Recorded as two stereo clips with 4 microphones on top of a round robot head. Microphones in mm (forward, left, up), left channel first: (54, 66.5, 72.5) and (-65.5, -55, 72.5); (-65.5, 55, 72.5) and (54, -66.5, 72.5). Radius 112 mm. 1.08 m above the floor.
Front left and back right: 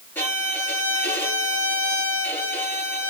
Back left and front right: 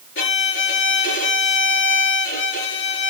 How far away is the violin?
About 7.5 m.